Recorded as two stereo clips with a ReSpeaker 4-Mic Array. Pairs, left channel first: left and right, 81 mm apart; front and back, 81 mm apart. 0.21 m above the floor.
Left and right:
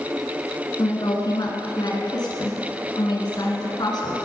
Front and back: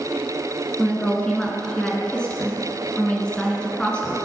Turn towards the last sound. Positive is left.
turn(degrees=75)